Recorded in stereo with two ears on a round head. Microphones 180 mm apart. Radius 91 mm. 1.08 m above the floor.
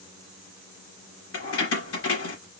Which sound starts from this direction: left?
Keys jangling, at 1.3 s.